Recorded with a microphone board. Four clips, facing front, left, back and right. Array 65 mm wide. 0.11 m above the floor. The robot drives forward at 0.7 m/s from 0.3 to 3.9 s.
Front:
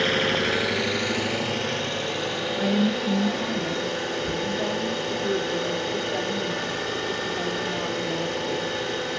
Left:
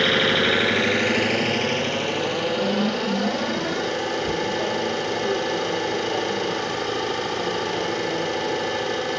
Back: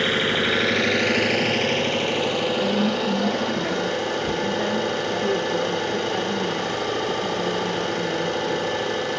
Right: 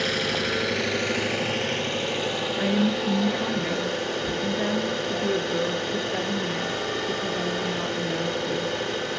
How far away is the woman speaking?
About 1.3 m.